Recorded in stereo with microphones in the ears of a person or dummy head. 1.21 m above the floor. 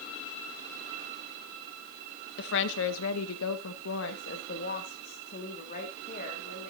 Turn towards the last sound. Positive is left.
turn(degrees=40)  # may be behind; listen again after turning